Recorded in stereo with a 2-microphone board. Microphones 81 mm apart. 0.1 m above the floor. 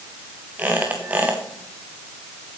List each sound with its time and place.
0.6 s a squeak: 20° right (ahead or behind), 2.5 m